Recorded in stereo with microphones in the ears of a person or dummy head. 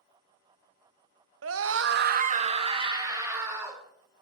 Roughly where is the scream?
Right.